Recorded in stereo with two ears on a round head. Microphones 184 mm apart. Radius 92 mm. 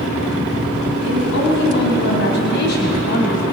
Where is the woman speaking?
60° left (ahead or behind), 6 m; by 3.4 s 45° left (ahead or behind), 4 m.